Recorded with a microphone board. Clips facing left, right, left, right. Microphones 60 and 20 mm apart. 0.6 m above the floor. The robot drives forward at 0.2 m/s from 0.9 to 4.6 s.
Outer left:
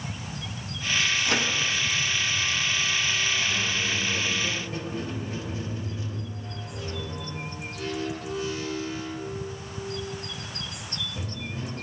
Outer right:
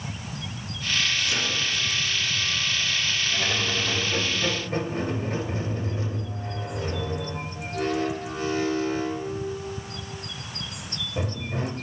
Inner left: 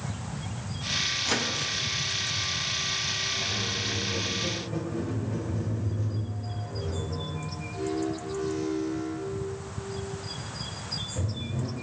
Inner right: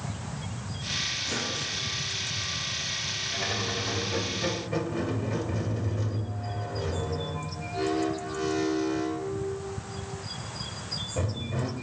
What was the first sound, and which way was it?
A microwave, 65° left (ahead or behind).